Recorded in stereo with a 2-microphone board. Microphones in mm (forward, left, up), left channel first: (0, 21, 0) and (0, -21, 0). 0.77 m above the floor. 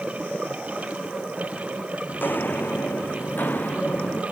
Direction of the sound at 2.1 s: 50° left (ahead or behind).